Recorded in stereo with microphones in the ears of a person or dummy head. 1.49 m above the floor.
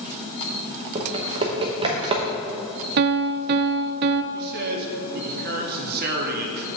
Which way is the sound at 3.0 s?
50° right (ahead or behind).